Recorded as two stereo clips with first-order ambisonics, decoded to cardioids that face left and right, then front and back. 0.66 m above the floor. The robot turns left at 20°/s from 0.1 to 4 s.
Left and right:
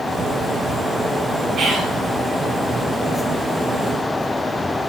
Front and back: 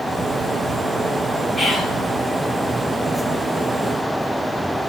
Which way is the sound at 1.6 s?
85° right.